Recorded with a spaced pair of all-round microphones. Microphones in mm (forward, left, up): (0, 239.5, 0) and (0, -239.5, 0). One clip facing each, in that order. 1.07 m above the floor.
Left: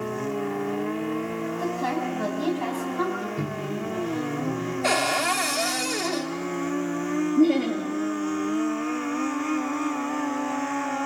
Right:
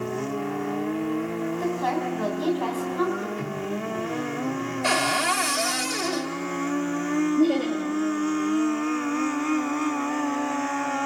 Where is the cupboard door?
30° right (ahead or behind), 1.5 m.